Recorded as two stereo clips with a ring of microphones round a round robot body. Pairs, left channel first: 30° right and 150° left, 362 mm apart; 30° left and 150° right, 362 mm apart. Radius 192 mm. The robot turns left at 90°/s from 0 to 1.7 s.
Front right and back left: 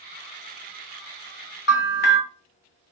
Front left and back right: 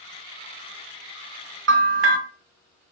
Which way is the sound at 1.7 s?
90° right.